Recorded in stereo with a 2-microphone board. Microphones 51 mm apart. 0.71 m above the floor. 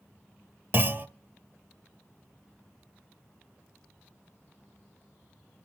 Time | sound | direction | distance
0.7 | a clunk | 40° right (ahead or behind) | 0.7 m